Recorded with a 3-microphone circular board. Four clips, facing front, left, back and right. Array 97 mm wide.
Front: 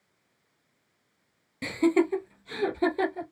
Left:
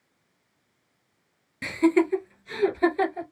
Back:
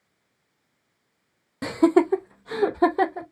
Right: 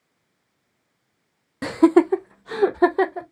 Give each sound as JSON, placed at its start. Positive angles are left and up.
{"t": 1.6, "sound": "laughter", "azimuth_deg": -125, "distance_m": 0.6}